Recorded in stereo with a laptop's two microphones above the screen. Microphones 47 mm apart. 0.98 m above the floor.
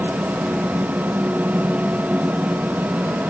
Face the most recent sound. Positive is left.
turn(degrees=-35)  # may be behind; listen again after turning